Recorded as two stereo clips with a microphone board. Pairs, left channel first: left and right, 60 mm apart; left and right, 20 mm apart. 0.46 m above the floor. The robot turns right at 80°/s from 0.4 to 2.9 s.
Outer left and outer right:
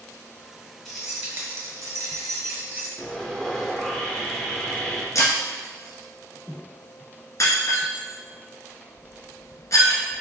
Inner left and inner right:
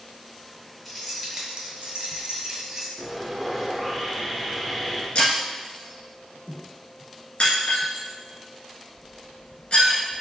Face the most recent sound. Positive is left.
turn(degrees=60)  # may be behind; listen again after turning